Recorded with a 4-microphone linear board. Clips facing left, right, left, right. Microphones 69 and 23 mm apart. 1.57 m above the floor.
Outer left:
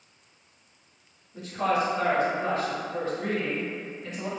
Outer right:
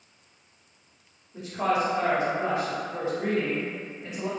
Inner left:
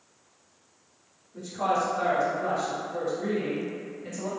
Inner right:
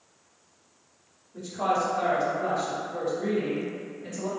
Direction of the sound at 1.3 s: 20° right (ahead or behind).